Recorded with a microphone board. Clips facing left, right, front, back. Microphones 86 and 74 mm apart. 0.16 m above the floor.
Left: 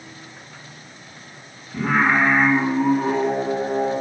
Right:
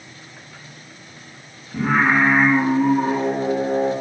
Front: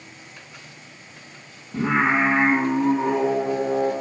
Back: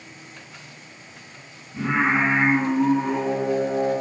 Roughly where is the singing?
Ahead.